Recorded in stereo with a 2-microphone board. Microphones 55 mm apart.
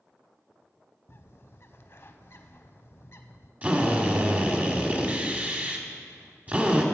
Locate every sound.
1.1 s a bird: 50° left (ahead or behind), 0.7 m
3.6 s a drill: 30° right (ahead or behind), 1.5 m